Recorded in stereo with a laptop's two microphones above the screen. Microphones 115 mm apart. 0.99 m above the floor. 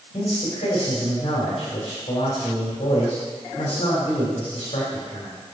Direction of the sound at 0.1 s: 65° left (ahead or behind).